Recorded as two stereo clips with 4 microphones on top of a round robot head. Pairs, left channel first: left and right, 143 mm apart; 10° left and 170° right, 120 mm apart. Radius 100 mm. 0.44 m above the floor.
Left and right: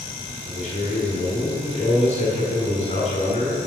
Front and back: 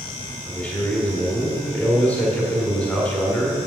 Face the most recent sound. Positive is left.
turn(degrees=85)